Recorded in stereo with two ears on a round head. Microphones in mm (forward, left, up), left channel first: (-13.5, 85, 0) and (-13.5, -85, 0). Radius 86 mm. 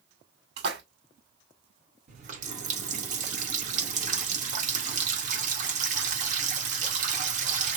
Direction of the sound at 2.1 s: 40° right (ahead or behind).